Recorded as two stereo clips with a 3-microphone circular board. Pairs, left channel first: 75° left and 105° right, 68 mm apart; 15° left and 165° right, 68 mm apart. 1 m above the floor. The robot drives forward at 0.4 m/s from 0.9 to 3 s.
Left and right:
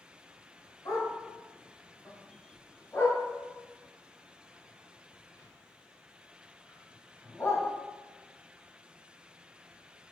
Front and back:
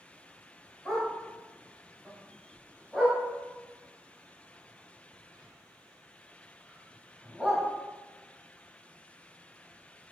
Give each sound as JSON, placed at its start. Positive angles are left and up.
{"t": 0.8, "sound": "a dog barking", "azimuth_deg": 100, "distance_m": 1.4}